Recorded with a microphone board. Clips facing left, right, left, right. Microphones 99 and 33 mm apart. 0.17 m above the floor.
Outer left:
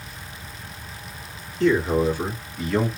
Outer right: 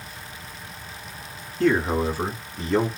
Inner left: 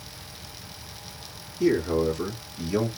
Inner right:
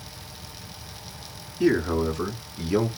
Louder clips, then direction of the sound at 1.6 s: Outer left 2 dB, even; 45° right (ahead or behind).